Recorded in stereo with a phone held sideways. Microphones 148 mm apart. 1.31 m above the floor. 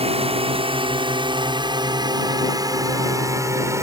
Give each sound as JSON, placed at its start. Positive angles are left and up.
{"t": 0.0, "sound": "a drone", "side_deg": -45}